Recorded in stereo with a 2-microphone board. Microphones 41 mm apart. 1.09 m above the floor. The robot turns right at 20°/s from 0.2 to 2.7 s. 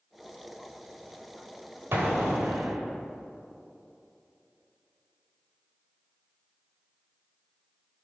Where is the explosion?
70° right (ahead or behind), 2 m; by 2.8 s 60° right (ahead or behind), 2 m.